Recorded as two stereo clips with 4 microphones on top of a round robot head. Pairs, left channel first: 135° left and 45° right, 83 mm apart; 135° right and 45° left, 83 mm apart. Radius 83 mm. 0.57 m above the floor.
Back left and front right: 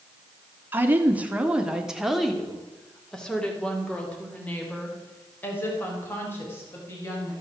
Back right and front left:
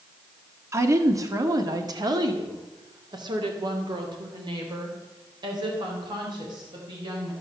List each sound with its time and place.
0.7 s a woman speaking: 10° left, 1.8 m; by 7.3 s 75° left, 4.5 m